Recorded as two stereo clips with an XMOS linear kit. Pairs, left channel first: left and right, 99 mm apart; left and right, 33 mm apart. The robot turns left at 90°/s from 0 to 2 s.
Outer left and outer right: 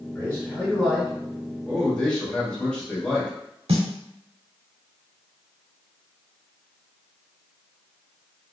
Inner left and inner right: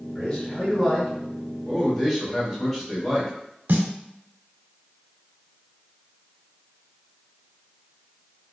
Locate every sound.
0.1 s a man speaking: 25° left (ahead or behind), 1.4 m; by 1.1 s 5° right (ahead or behind), 1.4 m
1.6 s a man speaking: 160° right, 1.2 m; by 3.3 s 165° left, 1.2 m
3.7 s a snare drum: 85° right, 0.6 m